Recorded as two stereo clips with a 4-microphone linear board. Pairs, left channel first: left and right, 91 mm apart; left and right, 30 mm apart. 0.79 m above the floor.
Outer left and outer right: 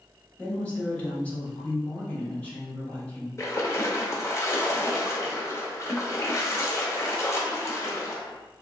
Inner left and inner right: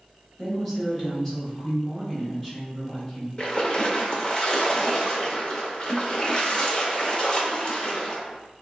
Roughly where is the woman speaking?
Centre.